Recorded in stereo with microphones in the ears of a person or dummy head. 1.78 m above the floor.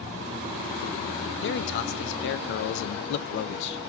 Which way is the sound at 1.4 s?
70° left (ahead or behind).